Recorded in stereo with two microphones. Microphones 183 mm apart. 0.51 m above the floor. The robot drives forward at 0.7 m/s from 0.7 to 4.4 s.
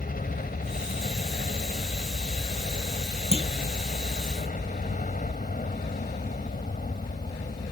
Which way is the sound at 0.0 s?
45° left (ahead or behind).